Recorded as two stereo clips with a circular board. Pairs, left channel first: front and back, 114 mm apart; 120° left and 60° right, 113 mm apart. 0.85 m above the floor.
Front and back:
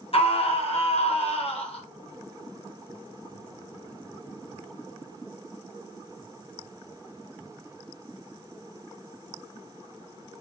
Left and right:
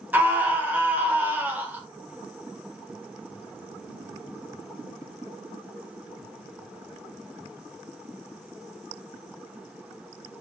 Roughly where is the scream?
Ahead.